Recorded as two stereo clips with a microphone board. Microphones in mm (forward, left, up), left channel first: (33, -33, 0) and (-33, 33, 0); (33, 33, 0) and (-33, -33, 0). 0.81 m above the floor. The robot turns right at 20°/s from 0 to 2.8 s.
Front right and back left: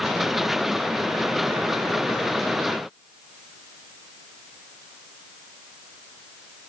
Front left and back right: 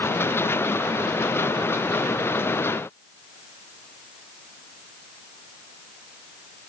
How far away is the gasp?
No gasp in this recording.